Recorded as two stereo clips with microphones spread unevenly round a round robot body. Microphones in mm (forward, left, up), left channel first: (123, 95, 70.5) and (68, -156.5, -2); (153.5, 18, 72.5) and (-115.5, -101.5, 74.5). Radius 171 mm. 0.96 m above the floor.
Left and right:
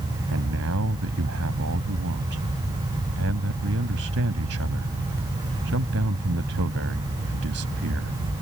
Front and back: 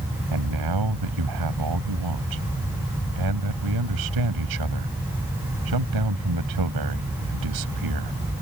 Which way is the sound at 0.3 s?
155° right.